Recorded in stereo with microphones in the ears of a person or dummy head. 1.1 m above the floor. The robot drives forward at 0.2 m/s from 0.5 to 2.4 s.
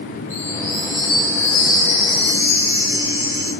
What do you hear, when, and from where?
0.3 s a chime: 20° right (ahead or behind), 1.6 m; by 3.5 s 15° right (ahead or behind), 1.9 m